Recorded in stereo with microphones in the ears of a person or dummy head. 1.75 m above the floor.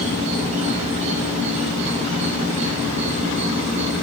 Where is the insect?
40° right (ahead or behind), 1.5 m.